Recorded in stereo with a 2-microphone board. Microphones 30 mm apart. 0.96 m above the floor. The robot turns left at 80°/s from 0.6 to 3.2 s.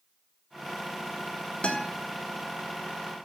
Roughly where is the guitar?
Left.